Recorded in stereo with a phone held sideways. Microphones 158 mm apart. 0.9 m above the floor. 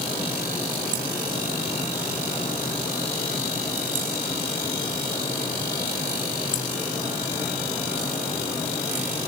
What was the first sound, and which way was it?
Only background noise.